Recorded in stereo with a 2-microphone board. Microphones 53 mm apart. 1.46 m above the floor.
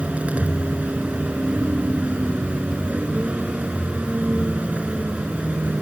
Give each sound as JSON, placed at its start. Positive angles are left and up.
{"t": 0.0, "sound": "a vehicle", "side_deg": -25}